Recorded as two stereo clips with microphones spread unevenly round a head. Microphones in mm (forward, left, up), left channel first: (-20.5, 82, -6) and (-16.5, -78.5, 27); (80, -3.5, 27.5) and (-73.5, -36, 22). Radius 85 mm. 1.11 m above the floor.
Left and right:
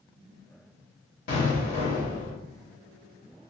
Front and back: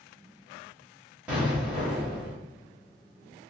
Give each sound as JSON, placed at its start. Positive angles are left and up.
{"t": 1.3, "sound": "an explosion", "azimuth_deg": 110, "distance_m": 1.4}